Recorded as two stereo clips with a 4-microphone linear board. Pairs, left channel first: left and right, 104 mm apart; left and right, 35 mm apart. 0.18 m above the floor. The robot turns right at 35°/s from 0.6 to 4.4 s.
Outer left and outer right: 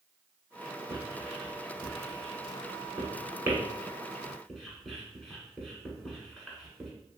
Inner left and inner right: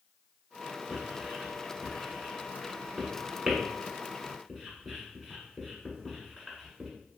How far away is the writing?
About 1.2 m.